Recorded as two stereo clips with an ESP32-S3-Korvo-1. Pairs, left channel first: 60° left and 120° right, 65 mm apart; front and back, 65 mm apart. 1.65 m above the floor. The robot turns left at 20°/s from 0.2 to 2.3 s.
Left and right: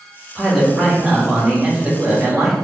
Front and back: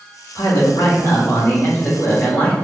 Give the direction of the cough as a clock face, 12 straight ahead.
No cough in this recording.